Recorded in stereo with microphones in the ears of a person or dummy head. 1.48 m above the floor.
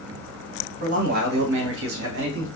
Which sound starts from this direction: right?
A man speaking, at 0.8 s.